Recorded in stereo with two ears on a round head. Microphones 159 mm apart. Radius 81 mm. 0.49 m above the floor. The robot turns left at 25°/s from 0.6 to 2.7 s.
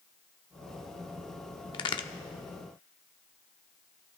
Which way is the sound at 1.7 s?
25° left (ahead or behind).